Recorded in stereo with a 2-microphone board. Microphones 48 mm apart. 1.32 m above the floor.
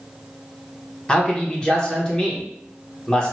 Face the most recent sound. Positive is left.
turn(degrees=15)  # may be behind; listen again after turning